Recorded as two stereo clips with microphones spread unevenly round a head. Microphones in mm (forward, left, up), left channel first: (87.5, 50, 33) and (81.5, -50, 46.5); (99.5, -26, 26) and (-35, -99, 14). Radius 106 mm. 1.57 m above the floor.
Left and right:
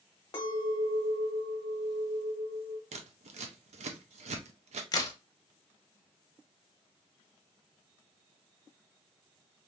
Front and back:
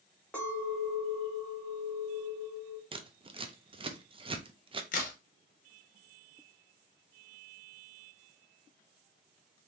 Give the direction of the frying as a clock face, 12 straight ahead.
No frying in this recording.